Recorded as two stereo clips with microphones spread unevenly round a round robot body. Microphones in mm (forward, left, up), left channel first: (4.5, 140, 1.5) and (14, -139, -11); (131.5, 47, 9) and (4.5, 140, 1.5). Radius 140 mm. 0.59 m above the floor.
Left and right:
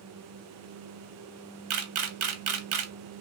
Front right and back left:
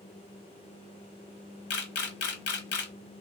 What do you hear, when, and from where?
1.7 s a camera shutter: 50° right, 0.8 m